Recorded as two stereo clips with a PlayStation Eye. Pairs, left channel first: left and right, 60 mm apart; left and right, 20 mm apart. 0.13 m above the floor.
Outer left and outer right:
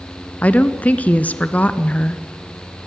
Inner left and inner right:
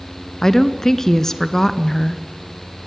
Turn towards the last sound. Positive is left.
turn(degrees=25)  # may be behind; listen again after turning